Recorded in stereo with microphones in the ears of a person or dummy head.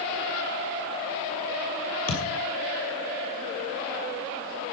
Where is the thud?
45° left (ahead or behind), 2.5 m.